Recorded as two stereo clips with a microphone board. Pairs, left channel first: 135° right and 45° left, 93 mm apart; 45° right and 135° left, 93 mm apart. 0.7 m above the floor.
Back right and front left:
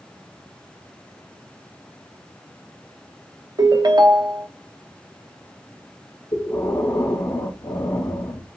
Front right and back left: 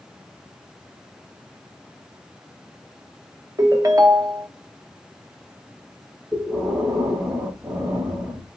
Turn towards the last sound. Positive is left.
turn(degrees=180)